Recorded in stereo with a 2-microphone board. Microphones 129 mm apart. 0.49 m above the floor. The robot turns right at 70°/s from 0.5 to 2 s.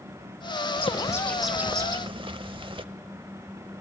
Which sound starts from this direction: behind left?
A bird, at 0.8 s.